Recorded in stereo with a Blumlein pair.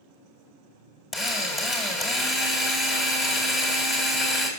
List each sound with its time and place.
1.1 s a drill: 15° left, 2 m